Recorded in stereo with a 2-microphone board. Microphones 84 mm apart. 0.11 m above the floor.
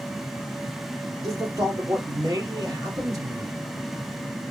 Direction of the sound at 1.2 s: 45° right (ahead or behind).